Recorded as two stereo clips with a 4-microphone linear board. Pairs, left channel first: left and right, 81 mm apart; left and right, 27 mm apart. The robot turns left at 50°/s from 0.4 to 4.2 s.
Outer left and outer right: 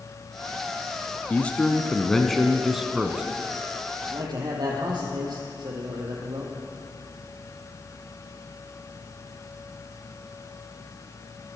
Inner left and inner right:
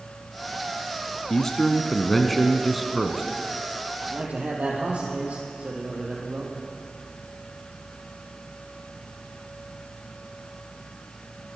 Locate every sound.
1.3 s a man speaking: 15° left (ahead or behind), 1.1 m; by 3.2 s 10° right (ahead or behind), 1.1 m
4.0 s a man speaking: 65° right (ahead or behind), 4 m; by 6.6 s 60° right (ahead or behind), 4 m